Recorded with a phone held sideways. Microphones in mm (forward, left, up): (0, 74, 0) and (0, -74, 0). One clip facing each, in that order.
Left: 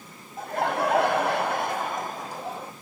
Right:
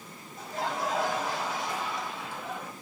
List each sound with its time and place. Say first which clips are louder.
0.4 s laughter: left 7 dB; 55° left (ahead or behind), 1.1 m; by 2.7 s 30° left (ahead or behind), 1.0 m